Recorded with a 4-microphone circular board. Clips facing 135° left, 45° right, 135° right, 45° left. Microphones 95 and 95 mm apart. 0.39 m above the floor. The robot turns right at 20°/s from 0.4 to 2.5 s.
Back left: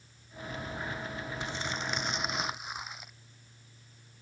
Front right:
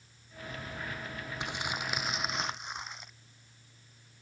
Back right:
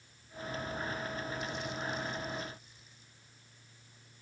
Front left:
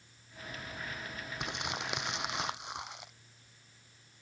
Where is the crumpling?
25° left; by 3.1 s 50° left.